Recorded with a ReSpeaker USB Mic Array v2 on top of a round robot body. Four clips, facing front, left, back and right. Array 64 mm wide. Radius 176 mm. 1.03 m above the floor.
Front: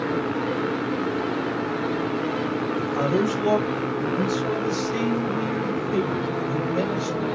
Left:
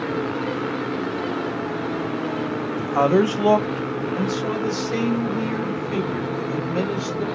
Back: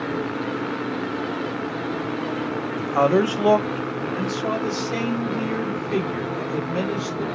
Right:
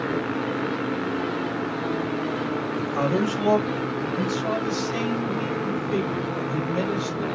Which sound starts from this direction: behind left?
A man speaking, at 2.8 s.